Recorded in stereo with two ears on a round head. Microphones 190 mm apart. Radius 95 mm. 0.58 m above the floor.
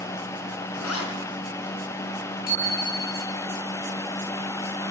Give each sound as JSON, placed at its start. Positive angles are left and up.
{"t": 0.7, "sound": "a zipper", "side_deg": 75, "distance_m": 6.5}
{"t": 2.5, "sound": "a bicycle bell", "side_deg": 45, "distance_m": 10.0}